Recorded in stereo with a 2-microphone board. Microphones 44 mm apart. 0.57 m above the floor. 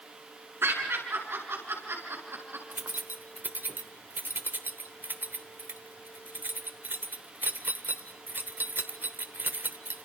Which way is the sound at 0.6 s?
65° right (ahead or behind).